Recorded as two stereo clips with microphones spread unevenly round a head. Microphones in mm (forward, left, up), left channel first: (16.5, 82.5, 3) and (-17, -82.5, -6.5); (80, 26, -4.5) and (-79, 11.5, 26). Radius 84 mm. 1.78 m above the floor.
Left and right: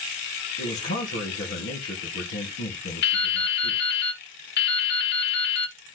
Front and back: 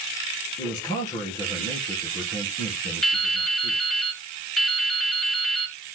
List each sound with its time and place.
0.6 s a man speaking: 70° left, 2 m
3.0 s dripping: 100° left, 1.1 m